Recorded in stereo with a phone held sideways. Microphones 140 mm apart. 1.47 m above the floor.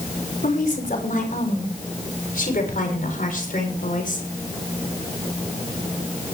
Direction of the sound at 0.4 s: 85° left.